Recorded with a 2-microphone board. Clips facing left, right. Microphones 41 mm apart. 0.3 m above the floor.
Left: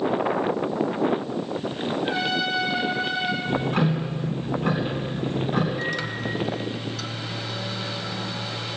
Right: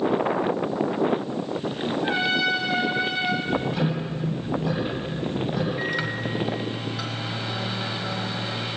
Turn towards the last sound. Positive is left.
turn(degrees=-15)  # may be behind; listen again after turning